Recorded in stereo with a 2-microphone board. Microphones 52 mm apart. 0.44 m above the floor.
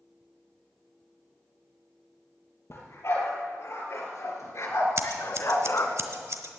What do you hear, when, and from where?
2.7 s a dog barking: 55° left (ahead or behind), 3.5 m; by 6.0 s 60° left (ahead or behind), 1.1 m
5.0 s scissors: 60° right (ahead or behind), 1.2 m